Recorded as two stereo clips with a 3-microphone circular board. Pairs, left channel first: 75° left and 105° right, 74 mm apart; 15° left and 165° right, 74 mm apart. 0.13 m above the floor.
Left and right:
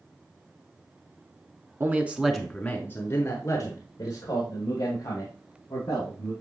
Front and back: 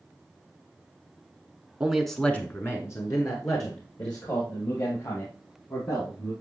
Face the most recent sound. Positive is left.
turn(degrees=45)